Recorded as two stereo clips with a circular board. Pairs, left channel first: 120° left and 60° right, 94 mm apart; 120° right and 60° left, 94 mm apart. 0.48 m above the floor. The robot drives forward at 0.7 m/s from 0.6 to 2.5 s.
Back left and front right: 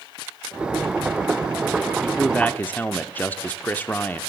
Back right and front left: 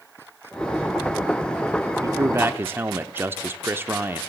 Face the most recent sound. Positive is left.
turn(degrees=80)